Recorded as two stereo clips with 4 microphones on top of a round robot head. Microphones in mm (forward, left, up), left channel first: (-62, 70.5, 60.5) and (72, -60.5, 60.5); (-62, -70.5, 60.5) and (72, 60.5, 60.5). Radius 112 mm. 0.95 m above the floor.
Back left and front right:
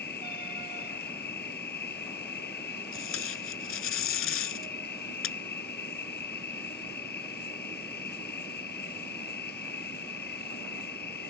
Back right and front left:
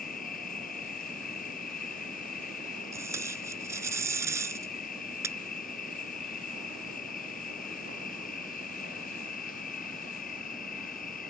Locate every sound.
0.0 s an insect: 175° left
2.9 s tape being pulled: 120° left